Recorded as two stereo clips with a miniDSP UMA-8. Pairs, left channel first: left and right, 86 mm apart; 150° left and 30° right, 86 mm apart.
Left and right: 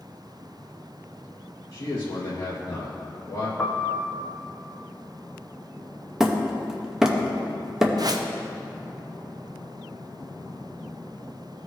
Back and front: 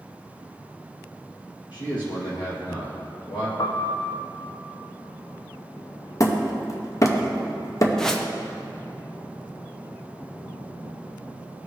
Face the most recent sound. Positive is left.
turn(degrees=-125)